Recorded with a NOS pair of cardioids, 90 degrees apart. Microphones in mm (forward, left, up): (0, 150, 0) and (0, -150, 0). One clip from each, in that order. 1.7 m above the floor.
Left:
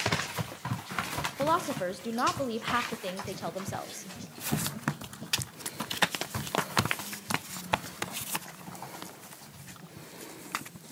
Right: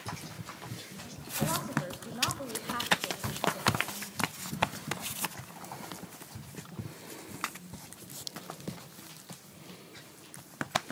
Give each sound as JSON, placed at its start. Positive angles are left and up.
{"t": 1.4, "sound": "a woman speaking", "azimuth_deg": 40, "distance_m": 0.5}